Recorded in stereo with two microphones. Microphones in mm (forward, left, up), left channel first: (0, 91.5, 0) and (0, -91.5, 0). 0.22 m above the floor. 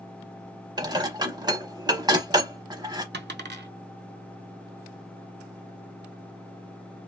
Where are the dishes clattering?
20° right (ahead or behind), 0.8 m.